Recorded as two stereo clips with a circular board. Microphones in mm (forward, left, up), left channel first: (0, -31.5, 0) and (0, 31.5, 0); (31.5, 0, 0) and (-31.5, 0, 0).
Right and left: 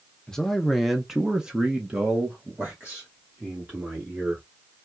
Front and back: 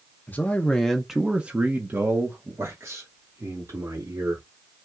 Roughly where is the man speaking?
Ahead.